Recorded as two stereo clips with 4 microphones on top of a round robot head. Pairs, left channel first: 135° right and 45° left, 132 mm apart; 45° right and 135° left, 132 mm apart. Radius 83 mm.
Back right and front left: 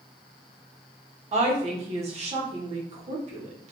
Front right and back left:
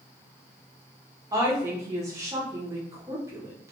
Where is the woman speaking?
70° left, 1.4 m.